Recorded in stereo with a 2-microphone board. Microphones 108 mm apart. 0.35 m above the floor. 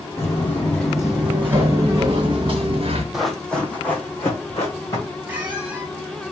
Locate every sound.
0.2 s footsteps: 25° left (ahead or behind), 1.1 m; by 3.0 s 55° right (ahead or behind), 1.4 m
3.1 s running footsteps: 5° right (ahead or behind), 0.8 m; by 5.2 s 25° left (ahead or behind), 2 m
5.3 s a squeak: 15° right (ahead or behind), 1.5 m